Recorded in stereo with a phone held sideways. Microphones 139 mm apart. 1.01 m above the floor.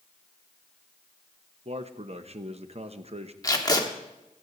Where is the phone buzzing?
No phone buzzing in this recording.